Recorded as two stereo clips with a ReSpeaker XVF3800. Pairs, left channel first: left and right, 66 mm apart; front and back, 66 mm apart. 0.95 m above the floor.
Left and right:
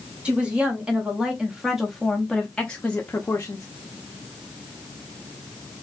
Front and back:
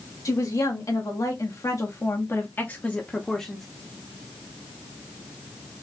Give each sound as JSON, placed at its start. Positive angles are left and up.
{"t": 0.2, "sound": "a woman speaking", "azimuth_deg": -20, "distance_m": 1.7}